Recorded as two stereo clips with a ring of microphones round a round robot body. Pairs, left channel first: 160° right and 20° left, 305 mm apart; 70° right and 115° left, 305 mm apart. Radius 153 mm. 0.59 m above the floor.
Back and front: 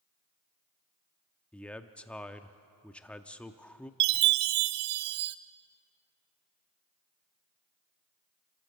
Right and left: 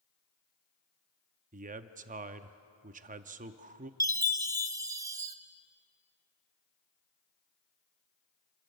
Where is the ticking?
No ticking in this recording.